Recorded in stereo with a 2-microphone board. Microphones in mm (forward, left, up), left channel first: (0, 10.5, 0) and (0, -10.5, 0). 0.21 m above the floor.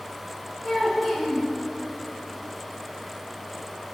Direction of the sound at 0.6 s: 10° left (ahead or behind).